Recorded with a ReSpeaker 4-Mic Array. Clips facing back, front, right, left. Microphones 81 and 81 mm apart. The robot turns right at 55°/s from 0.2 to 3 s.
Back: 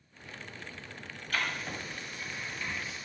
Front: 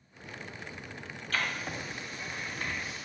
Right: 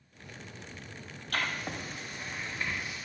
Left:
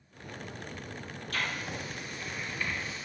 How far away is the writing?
About 2 m.